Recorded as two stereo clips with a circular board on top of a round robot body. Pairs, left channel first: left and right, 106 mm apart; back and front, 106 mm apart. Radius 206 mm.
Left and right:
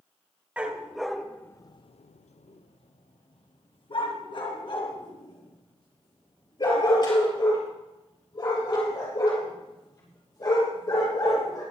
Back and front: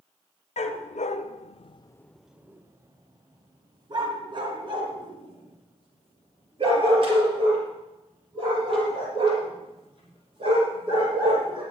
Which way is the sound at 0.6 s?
170° right.